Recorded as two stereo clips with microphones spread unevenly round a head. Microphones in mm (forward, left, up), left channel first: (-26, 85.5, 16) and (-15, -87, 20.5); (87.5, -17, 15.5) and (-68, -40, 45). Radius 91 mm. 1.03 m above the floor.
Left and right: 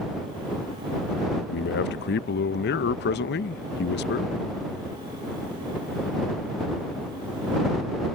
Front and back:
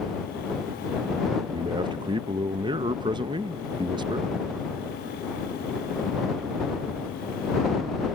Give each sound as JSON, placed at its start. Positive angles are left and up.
{"t": 1.5, "sound": "a man speaking", "azimuth_deg": 120}